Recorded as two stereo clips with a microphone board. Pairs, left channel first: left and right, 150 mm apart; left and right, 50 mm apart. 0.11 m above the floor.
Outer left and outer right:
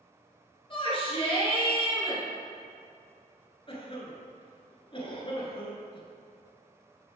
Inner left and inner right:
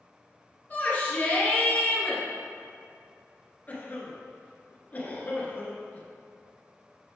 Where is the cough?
35° left (ahead or behind), 1.4 m.